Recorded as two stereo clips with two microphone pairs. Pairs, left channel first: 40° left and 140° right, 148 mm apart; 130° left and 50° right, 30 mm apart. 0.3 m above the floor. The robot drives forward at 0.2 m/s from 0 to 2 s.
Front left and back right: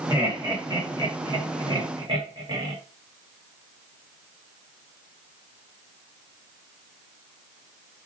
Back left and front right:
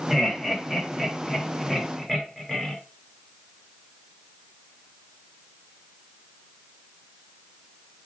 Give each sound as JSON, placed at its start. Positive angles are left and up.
{"t": 0.1, "sound": "laughter", "azimuth_deg": -135, "distance_m": 1.2}